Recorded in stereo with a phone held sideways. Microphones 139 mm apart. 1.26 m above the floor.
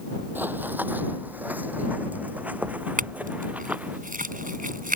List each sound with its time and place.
0.3 s running footsteps: 15° right (ahead or behind); by 4.0 s 10° right (ahead or behind)
3.0 s a clink: 75° right (ahead or behind)